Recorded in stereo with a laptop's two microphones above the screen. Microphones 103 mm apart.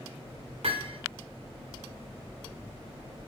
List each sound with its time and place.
0.6 s hammering: 80° right, 3 m